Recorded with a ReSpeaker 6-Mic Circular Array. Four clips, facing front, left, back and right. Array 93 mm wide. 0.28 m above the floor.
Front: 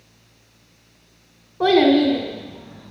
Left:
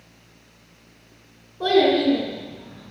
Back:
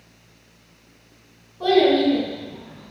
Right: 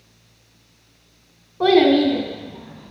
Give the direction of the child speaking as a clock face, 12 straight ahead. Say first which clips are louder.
Right 4 dB, front 2 dB; 2 o'clock.